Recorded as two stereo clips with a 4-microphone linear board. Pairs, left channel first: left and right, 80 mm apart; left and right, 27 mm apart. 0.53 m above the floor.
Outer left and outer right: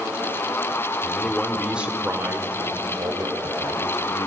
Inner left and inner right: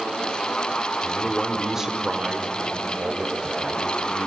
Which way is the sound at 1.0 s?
15° left (ahead or behind).